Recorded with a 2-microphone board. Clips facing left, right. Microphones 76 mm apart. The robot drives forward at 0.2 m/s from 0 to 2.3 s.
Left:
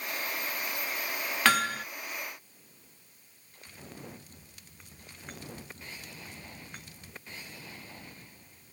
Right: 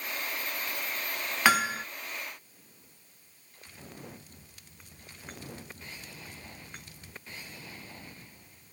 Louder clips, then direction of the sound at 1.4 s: Right 1 dB; 10° right (ahead or behind).